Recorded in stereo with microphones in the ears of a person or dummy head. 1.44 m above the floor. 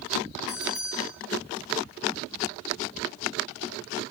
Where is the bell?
35° left (ahead or behind), 7 m.